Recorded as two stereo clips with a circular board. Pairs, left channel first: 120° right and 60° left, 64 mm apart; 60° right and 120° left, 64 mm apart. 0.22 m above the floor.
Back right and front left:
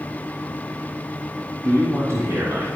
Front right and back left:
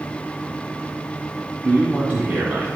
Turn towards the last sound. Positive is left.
turn(degrees=60)